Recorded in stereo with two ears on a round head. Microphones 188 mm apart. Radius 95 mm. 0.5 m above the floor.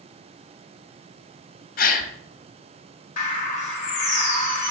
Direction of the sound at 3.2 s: 40° left (ahead or behind).